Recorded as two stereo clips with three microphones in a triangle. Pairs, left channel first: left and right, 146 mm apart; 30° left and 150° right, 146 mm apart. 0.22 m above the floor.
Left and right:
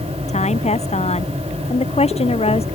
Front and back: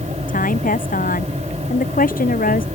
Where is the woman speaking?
50° left; by 2.6 s 45° left.